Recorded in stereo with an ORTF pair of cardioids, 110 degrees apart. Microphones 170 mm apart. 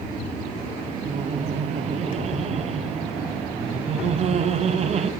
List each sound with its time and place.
1.1 s laughter: 40° right, 0.9 m